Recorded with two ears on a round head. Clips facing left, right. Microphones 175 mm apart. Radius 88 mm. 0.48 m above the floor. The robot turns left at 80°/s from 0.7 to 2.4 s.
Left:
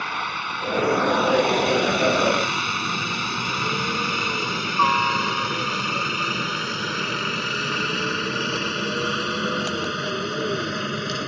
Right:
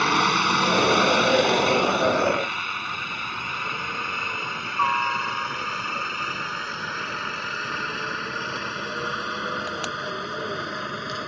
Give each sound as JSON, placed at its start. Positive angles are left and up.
{"t": 0.0, "sound": "a helicopter", "side_deg": -60}